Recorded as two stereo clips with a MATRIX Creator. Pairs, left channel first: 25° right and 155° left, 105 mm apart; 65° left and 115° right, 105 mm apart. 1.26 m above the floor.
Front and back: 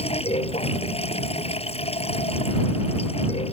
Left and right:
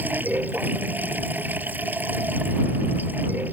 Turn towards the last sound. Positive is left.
turn(degrees=-40)